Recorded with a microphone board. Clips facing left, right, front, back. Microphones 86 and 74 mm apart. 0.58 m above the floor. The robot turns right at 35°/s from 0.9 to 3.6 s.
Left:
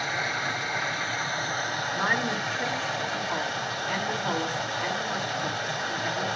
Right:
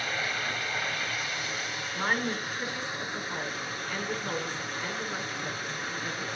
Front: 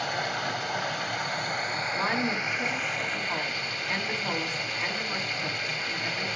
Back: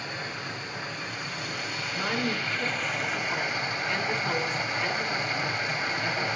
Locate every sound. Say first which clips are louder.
0.0 s running water: left 3 dB, front 6 dB; 20° left, 2 m; by 6.4 s 115° left, 2 m
1.9 s a woman speaking: left 1 dB, even; 5° left, 5 m; by 6.4 s 60° left, 5 m